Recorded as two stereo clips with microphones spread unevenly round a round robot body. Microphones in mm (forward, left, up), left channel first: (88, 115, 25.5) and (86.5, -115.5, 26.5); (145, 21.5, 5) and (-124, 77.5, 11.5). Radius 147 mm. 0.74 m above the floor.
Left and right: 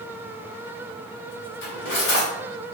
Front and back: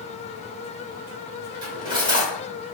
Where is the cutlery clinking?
95° left, 1.8 m.